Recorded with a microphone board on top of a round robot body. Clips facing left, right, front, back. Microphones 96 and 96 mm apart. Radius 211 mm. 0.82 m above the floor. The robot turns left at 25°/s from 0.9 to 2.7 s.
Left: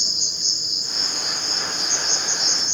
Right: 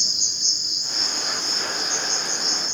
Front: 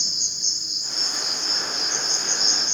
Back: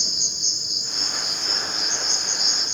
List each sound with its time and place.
0.0 s an insect: 145° left, 1.6 m; by 2.8 s 100° left, 1.6 m